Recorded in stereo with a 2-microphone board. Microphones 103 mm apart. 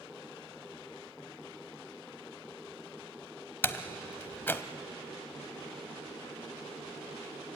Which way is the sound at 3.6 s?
20° left (ahead or behind).